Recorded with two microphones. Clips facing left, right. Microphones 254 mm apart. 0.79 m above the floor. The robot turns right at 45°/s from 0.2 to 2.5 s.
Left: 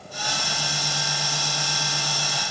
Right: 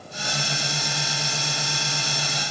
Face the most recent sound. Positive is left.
No sound to turn to.